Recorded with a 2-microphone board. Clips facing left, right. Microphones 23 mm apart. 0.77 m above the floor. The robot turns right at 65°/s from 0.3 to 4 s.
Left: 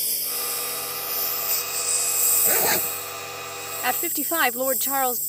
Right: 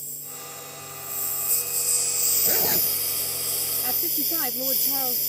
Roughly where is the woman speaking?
Left.